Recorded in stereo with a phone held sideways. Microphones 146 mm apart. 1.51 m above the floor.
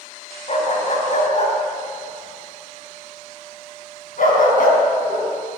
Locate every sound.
0.5 s a dog barking: 50° left (ahead or behind), 3.5 m; by 5.3 s 75° left (ahead or behind), 4.5 m